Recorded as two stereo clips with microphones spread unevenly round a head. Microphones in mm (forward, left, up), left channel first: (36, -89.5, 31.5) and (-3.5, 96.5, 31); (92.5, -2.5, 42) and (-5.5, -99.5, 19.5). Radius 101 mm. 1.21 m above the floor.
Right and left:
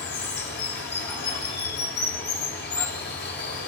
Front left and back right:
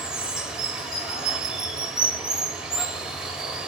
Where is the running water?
45° right, 1.7 m.